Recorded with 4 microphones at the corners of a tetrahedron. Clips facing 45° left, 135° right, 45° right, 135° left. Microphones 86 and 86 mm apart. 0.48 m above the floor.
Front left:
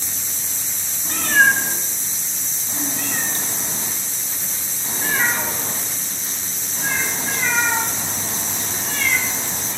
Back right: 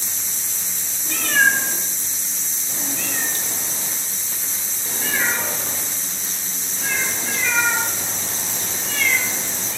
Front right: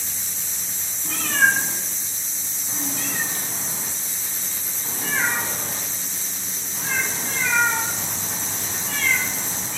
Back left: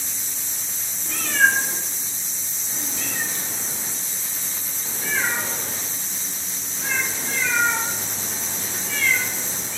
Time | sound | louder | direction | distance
1.1 | a cat meowing | front left 2 dB, even | 5° right | 1.4 m